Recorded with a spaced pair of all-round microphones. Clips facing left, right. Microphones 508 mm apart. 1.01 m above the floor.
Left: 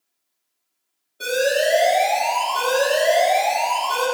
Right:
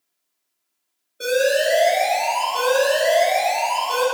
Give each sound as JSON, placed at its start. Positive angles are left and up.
{"t": 1.2, "sound": "an alarm", "side_deg": 15, "distance_m": 3.5}